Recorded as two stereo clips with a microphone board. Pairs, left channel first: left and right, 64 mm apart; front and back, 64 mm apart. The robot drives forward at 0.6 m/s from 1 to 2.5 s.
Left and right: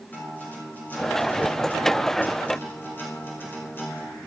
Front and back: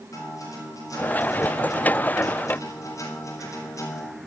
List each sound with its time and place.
0.1 s a guitar: 30° left, 5.5 m; by 4.3 s 35° left, 4.5 m